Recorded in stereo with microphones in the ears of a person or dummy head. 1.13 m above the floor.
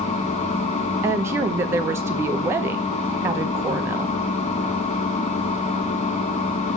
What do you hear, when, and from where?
0.0 s a machine running: 35° left (ahead or behind), 1.8 m
1.0 s a woman speaking: 10° right (ahead or behind), 0.9 m